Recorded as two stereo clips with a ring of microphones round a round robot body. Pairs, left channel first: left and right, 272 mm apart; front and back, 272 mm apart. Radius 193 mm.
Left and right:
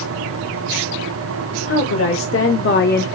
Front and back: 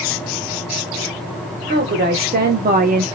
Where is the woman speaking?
125° left, 1.5 m; by 3.0 s 130° left, 0.6 m.